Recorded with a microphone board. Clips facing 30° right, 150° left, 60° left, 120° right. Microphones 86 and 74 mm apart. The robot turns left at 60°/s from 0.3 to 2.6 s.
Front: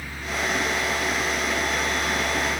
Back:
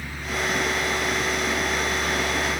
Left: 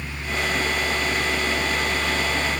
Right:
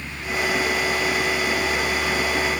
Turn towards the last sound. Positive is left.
No sound to turn to.